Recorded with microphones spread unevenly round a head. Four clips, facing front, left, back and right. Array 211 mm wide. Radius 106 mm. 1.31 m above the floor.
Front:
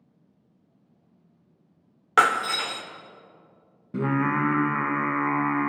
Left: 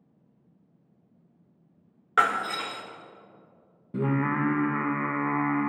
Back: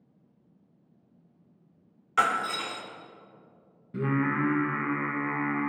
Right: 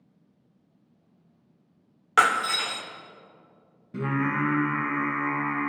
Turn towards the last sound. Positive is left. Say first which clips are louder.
# left 1 dB, front 3 dB
turn(degrees=25)